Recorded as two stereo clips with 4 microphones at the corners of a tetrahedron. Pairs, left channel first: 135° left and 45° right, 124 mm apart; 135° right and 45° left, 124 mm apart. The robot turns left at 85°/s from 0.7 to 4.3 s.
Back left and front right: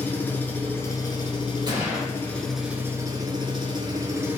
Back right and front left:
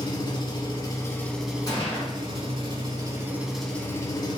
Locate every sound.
0.0 s an engine running: 160° right, 0.9 m; by 4.4 s 105° right, 0.9 m
1.7 s a gunshot: 85° right, 1.9 m; by 2.1 s 120° right, 1.9 m